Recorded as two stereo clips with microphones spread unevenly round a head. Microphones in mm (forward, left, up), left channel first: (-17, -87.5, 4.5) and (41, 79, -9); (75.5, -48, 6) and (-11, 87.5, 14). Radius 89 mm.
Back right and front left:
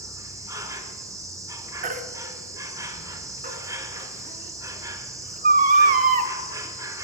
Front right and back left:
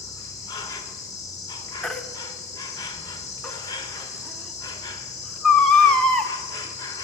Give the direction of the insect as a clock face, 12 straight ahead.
12 o'clock.